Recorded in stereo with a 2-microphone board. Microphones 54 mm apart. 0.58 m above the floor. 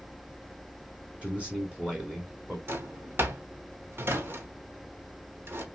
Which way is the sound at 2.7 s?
45° right (ahead or behind).